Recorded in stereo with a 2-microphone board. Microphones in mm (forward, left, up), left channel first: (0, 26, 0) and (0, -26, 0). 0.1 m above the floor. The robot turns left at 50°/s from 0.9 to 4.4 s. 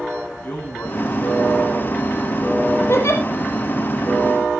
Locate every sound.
0.4 s a man speaking: 145° left, 8.5 m; by 2.0 s 90° left, 8.5 m
2.9 s a giggle: 50° left (ahead or behind), 3.5 m; by 3.2 s 60° left (ahead or behind), 3.5 m